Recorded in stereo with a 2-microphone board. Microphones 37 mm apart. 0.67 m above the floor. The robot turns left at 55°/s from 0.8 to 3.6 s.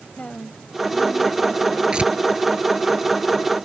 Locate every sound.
0.2 s a woman speaking: 35° left; by 1.8 s 20° right
1.9 s tearing paper: 25° right (ahead or behind); by 2.1 s 35° right (ahead or behind)